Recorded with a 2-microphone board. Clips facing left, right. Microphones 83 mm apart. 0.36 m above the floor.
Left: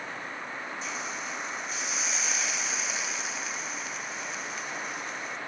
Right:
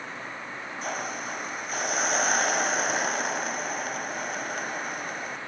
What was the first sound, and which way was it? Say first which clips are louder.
A hiss: right 3 dB; 50° right (ahead or behind).